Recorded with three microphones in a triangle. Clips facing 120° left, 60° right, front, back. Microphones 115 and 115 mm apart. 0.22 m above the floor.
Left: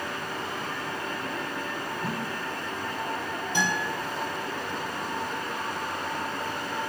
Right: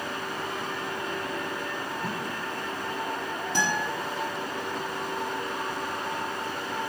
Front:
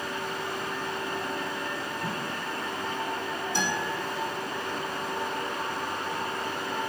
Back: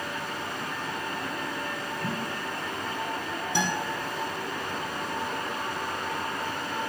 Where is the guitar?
110° right, 3 m.